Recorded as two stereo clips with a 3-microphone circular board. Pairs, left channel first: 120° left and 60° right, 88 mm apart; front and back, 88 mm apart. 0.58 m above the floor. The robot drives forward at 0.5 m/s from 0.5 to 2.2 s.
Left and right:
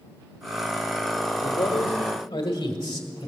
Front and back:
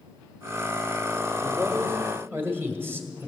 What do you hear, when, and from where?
1.4 s a man speaking: 105° left, 1.6 m; by 3.3 s 120° left, 1.7 m